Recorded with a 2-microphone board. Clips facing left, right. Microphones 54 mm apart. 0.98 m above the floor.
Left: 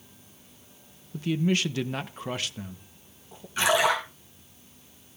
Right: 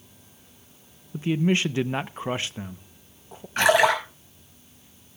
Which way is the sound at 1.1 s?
25° right (ahead or behind).